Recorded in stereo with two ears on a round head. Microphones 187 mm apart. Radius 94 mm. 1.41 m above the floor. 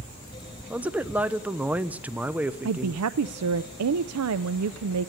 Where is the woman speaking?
85° right, 0.5 m.